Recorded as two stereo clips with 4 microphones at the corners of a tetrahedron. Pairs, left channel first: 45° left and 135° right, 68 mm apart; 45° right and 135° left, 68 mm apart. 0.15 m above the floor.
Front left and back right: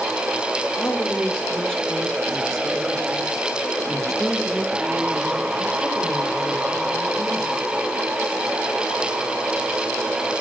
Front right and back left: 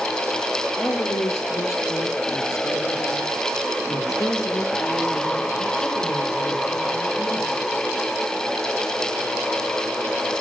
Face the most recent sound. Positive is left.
turn(degrees=-70)